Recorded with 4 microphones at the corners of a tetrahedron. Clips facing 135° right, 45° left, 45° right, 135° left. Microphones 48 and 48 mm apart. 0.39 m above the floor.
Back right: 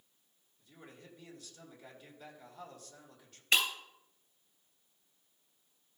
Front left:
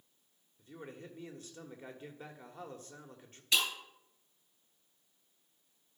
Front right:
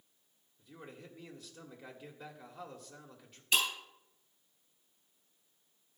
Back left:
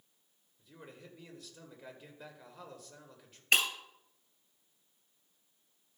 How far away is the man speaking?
About 1.5 m.